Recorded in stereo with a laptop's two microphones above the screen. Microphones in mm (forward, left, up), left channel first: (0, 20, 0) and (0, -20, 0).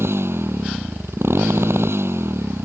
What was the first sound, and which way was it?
A motorcycle, 85° right.